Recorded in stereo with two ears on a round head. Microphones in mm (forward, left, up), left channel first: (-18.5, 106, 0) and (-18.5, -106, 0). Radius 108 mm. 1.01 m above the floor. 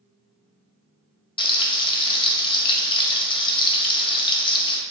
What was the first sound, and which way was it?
Frying, 20° left (ahead or behind).